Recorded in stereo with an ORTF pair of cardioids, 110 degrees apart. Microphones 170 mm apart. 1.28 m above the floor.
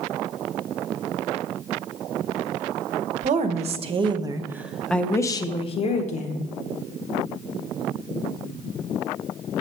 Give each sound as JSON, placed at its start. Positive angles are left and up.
{"t": 3.2, "sound": "a woman speaking", "azimuth_deg": -50, "distance_m": 1.2}